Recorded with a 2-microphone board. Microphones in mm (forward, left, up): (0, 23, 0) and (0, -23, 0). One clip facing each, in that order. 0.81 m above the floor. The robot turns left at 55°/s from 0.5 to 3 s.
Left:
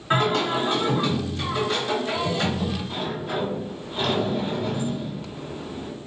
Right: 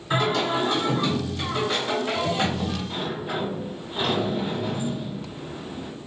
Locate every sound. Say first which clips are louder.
0.1 s singing: left 1 dB; 50° left, 1.4 m; by 2.8 s 80° right, 1.4 m
2.9 s a sliding door: left 1 dB; 10° right (ahead or behind), 0.8 m; by 5.9 s 15° right (ahead or behind), 0.8 m